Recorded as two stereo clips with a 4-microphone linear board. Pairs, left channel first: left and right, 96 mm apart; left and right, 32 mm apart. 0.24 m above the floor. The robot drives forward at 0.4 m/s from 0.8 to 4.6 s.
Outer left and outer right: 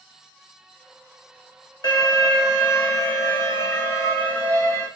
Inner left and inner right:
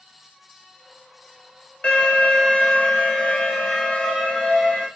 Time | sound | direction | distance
1.8 | an alarm | 45° left (ahead or behind) | 1.0 m